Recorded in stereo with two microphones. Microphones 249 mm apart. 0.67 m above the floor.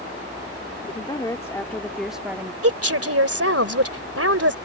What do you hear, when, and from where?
0.9 s a woman speaking: 20° left (ahead or behind); by 2.5 s 10° right (ahead or behind)
2.6 s a woman speaking: 65° right (ahead or behind)